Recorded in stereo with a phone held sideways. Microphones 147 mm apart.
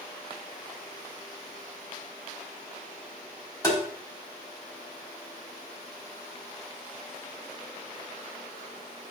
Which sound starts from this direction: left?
Tapping, at 3.6 s.